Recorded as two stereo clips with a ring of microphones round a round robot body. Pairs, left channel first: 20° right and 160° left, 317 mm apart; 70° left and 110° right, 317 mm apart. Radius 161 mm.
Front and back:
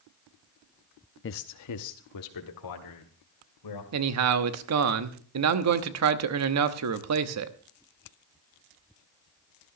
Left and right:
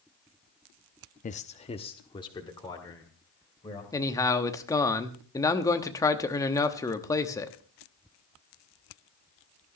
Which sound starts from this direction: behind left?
A man speaking, at 3.9 s.